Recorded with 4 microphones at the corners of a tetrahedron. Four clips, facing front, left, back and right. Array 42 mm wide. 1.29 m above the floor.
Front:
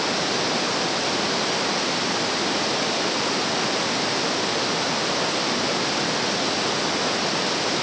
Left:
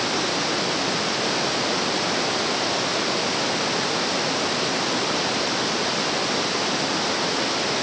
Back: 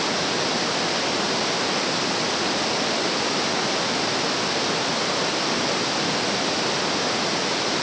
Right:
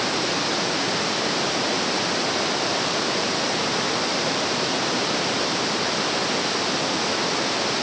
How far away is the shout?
No shout in this recording.